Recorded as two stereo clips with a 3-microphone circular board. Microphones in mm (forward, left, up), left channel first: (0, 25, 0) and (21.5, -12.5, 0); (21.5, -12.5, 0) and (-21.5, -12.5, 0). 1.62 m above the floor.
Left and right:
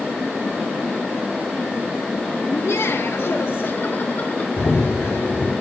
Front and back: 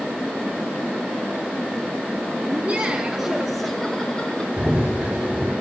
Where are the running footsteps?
110° left, 4.5 m.